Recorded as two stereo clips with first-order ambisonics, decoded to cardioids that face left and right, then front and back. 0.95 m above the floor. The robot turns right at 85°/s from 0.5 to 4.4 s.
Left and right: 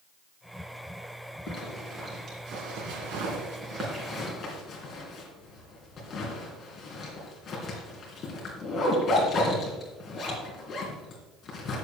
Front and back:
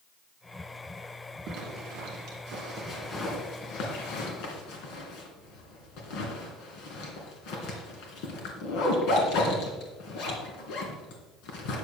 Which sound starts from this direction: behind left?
A zipper, at 1.5 s.